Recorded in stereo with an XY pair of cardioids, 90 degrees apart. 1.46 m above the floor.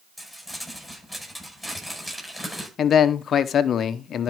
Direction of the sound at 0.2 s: 5° right.